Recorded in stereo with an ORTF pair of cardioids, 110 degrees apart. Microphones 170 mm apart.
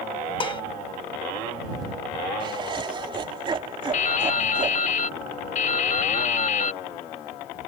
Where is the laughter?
30° right.